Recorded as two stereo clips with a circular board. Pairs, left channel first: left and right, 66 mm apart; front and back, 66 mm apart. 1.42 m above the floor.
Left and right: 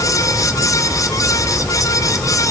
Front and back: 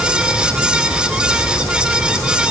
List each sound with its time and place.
Only background noise.